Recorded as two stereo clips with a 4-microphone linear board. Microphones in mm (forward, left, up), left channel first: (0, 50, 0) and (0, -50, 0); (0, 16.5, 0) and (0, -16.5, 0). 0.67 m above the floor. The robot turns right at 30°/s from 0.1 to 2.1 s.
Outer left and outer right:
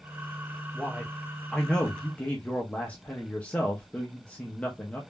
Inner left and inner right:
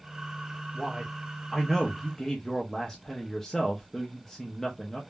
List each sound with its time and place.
0.7 s a man speaking: 15° right, 0.6 m; by 5.0 s 25° left, 0.6 m